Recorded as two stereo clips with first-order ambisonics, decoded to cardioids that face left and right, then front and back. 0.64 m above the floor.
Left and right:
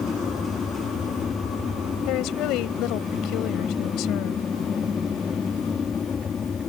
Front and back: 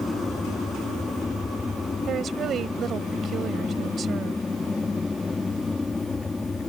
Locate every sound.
0.0 s an aircraft: 65° left
2.1 s a woman speaking: 120° left